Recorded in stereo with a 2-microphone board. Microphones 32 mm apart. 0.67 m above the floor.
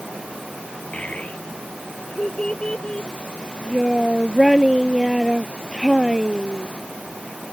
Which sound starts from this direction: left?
A child speaking, at 0.9 s.